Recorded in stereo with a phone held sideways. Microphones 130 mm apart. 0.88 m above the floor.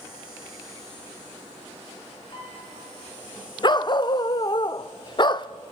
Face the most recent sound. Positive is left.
turn(degrees=35)  # may be behind; listen again after turning